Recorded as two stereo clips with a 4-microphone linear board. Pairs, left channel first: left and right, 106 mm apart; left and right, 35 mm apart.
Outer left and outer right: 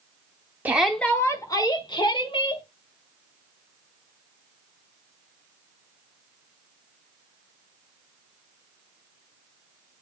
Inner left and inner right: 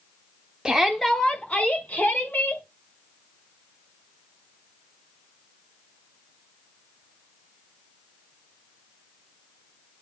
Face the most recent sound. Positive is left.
turn(degrees=55)  # may be behind; listen again after turning